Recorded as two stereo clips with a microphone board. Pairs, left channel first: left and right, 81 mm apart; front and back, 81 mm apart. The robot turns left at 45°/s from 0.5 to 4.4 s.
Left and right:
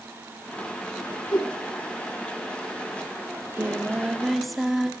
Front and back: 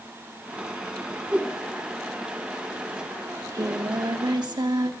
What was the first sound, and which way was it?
A whoosh, 110° left.